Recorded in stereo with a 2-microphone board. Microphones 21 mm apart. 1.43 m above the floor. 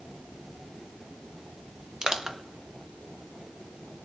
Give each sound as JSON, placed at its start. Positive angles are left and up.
{"t": 2.0, "sound": "crushing", "side_deg": -30, "distance_m": 0.7}